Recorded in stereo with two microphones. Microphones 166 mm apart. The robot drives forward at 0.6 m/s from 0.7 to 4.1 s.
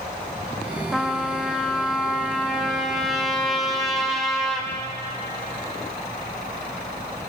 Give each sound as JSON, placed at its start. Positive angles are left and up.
{"t": 0.9, "sound": "a trumpet", "side_deg": 0, "distance_m": 1.0}